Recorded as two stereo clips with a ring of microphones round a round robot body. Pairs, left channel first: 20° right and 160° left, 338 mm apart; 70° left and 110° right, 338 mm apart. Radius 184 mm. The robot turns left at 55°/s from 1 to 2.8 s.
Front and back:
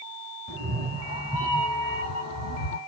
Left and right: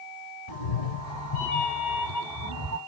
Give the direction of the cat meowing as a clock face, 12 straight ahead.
9 o'clock.